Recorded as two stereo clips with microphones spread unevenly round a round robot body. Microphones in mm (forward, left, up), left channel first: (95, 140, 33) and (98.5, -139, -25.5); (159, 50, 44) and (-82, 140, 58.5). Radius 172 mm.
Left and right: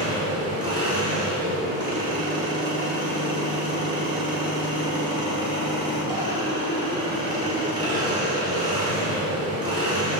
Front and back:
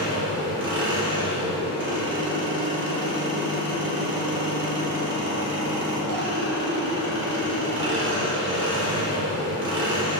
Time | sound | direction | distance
0.0 | an engine running | 155° right | 1.2 m